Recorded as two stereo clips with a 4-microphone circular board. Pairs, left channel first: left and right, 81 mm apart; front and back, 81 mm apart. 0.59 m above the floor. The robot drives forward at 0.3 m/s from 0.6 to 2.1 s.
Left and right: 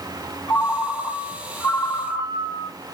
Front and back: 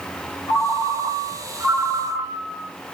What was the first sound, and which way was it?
A ringtone, 115° left.